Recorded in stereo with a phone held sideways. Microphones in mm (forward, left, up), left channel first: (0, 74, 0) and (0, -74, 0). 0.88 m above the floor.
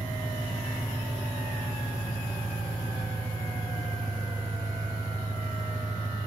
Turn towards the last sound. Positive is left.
turn(degrees=30)  # may be behind; listen again after turning